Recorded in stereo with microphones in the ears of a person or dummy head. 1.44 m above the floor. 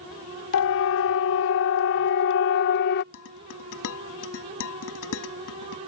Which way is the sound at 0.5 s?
70° left (ahead or behind).